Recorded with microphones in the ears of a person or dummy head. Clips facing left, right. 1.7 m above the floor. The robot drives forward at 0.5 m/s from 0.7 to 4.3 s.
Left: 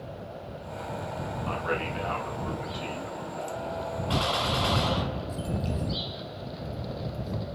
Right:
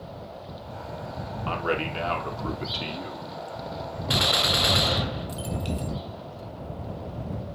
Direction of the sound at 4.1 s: 25° right (ahead or behind).